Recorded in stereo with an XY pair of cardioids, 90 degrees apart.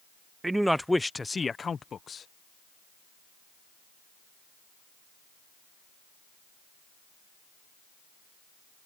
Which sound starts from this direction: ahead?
A man speaking, at 0.4 s.